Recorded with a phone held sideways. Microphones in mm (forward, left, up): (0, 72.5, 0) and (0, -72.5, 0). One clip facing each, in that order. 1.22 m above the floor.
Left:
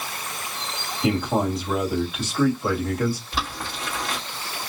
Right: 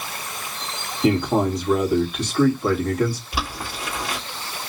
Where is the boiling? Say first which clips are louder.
Right 1 dB; 10° right (ahead or behind), 2.5 m.